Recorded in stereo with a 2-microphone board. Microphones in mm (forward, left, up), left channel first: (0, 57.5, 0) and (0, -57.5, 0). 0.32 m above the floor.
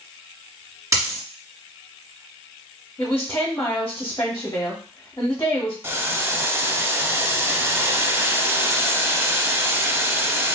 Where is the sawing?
No sawing in this recording.